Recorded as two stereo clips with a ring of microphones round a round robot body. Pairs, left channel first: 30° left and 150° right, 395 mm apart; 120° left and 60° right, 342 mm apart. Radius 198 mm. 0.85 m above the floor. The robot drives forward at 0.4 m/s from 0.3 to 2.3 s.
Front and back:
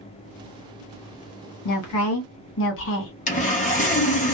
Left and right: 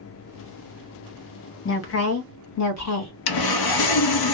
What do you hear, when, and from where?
1.6 s a woman speaking: 70° left, 1.1 m; by 3.1 s 85° left, 1.1 m
3.3 s sawing: 100° left, 0.6 m